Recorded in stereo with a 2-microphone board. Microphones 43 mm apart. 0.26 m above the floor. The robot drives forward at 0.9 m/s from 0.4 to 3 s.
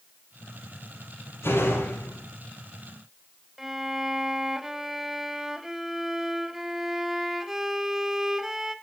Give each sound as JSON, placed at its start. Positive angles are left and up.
{"t": 1.4, "sound": "a door slam", "side_deg": 75, "distance_m": 5.0}
{"t": 3.6, "sound": "a violin", "side_deg": -10, "distance_m": 1.0}